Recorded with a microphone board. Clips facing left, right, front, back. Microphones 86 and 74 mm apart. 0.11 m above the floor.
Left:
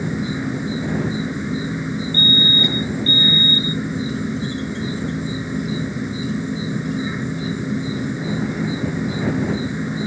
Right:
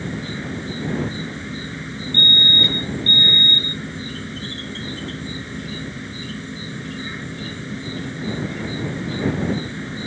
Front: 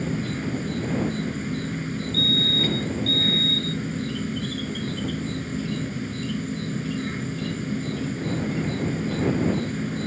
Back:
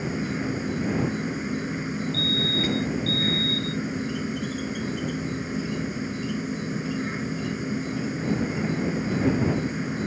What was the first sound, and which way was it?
An insect, 130° left.